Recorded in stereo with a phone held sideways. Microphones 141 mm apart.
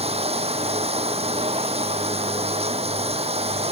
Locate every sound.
0.0 s running water: 45° right (ahead or behind)